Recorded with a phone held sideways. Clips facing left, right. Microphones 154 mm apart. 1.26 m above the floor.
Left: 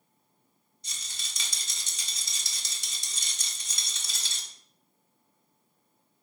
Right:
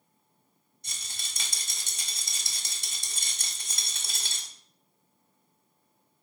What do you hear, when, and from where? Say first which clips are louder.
0.8 s a rattle: right 1 dB; 55° right (ahead or behind), 1.3 m